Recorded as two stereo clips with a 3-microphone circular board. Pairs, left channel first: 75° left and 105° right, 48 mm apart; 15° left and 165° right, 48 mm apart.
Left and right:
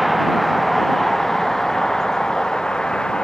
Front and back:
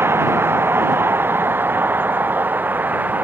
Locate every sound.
0.0 s a vehicle: 165° left; by 3.2 s 145° left